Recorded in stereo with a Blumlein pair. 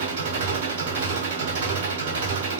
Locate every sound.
0.0 s an engine running: 60° right, 4.5 m